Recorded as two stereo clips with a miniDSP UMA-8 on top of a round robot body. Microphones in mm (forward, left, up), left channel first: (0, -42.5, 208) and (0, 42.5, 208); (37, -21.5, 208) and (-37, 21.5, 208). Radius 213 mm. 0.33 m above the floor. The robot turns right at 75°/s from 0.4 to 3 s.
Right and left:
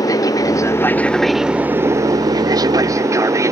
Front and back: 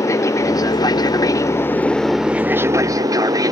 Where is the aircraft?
70° right; by 3.5 s 125° left.